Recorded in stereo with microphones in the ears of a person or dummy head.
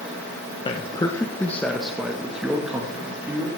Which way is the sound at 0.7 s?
25° left (ahead or behind).